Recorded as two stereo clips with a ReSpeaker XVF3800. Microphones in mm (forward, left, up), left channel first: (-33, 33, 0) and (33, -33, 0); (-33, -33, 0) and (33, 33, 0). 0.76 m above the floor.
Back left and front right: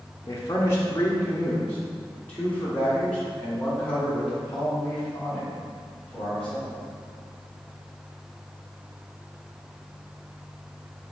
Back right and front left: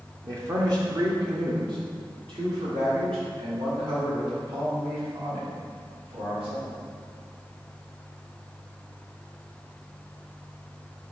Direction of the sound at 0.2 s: 90° left.